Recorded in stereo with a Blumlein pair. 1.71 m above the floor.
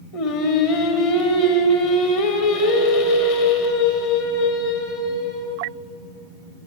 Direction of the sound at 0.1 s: 45° left.